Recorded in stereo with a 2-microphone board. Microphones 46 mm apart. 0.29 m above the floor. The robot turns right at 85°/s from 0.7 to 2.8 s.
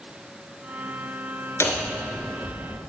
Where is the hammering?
115° left, 1.9 m; by 2.8 s 145° right, 1.9 m.